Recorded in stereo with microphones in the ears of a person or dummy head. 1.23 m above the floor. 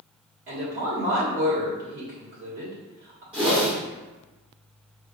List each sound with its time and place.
0.5 s a woman speaking: 50° right (ahead or behind), 1.7 m
3.3 s a whoosh: 10° right (ahead or behind), 1.1 m